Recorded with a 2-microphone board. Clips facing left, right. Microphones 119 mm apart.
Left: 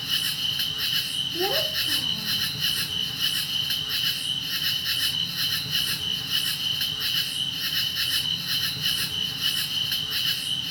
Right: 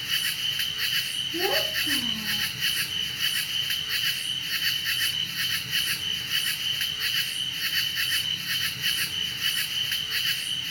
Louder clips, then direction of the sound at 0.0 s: Left 1 dB; 20° left (ahead or behind).